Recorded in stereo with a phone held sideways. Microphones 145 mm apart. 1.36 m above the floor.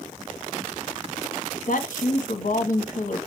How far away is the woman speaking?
About 0.9 m.